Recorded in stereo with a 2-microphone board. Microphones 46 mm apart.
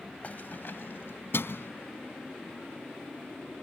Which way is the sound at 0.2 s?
35° left (ahead or behind).